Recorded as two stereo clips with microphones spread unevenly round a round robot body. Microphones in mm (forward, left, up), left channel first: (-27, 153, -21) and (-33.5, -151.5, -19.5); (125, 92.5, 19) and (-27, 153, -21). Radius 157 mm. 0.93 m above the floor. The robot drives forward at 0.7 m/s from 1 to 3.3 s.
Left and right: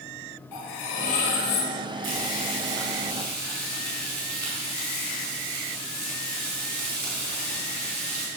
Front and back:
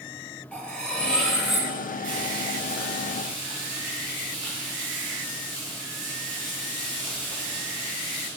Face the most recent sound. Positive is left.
turn(degrees=-150)